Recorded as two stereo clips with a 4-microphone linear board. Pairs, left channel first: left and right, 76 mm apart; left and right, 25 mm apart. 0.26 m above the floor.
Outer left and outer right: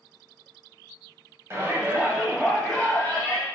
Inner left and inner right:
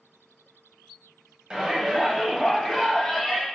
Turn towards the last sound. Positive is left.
turn(degrees=25)  # may be behind; listen again after turning